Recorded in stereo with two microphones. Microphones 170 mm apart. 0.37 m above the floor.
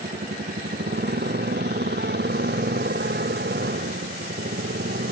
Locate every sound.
0.0 s a motorcycle: 70° right (ahead or behind); by 5.1 s 90° right